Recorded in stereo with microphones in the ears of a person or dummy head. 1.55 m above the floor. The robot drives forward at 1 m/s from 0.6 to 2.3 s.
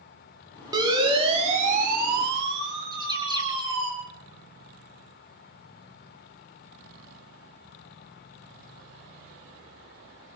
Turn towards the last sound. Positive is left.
turn(degrees=-20)  # may be behind; listen again after turning